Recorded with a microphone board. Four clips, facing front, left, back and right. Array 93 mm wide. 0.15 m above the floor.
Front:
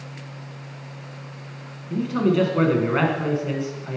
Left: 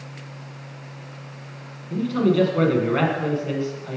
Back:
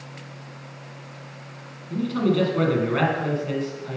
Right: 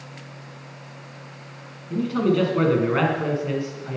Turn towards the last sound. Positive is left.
turn(degrees=-30)